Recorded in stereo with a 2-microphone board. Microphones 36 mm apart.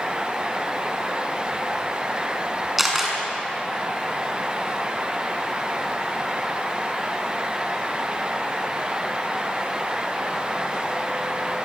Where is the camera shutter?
5° right (ahead or behind), 6 m.